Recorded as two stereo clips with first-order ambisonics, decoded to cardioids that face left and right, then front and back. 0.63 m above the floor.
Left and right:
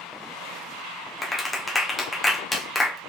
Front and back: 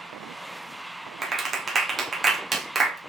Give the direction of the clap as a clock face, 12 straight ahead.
7 o'clock.